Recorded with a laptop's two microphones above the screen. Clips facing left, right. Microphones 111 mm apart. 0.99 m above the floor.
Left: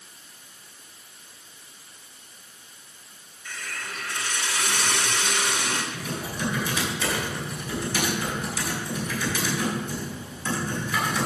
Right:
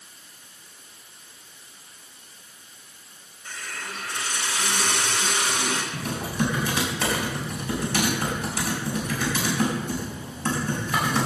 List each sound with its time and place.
3.5 s a hiss: 35° right (ahead or behind), 2.5 m
5.9 s typing on a keyboard: 60° right (ahead or behind), 5.5 m